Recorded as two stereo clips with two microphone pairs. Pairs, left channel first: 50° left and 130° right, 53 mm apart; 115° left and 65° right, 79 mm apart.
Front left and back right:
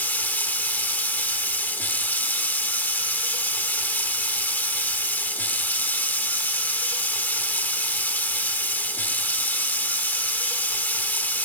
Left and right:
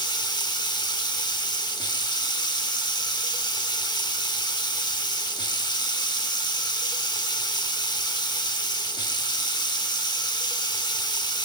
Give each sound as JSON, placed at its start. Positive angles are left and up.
{"t": 0.0, "sound": "running water", "azimuth_deg": 105, "distance_m": 0.8}